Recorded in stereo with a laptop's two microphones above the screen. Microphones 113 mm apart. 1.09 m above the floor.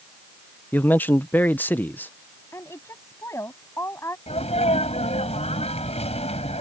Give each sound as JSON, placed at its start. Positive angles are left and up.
{"t": 0.7, "sound": "a man speaking", "side_deg": 15}
{"t": 2.5, "sound": "a woman speaking", "side_deg": 20}
{"t": 4.3, "sound": "a sneeze", "side_deg": 60}